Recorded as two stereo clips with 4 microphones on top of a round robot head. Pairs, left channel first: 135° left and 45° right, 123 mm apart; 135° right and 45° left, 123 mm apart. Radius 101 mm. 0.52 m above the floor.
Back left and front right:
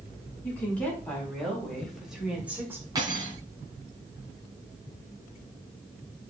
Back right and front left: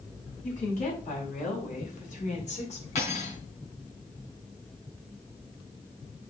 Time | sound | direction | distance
0.4 | a woman speaking | 150° right | 5 m
3.0 | cutlery clinking | 105° right | 3 m